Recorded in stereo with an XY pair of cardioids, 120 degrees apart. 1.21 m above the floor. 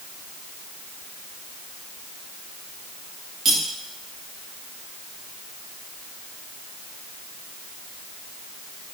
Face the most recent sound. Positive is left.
turn(degrees=-55)